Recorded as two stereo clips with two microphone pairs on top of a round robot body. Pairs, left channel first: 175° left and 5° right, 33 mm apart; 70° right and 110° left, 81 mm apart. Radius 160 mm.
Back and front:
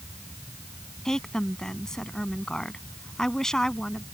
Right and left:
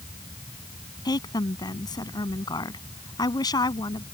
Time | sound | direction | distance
1.1 | a woman speaking | 115° right | ?